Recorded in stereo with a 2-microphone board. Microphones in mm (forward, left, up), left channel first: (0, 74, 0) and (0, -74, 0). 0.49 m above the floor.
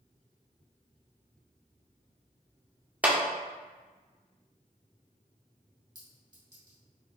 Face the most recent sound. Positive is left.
turn(degrees=-30)  # may be behind; listen again after turning